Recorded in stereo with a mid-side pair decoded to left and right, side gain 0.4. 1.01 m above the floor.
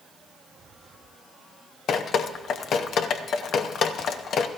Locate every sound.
1.9 s dripping: 65° left, 0.7 m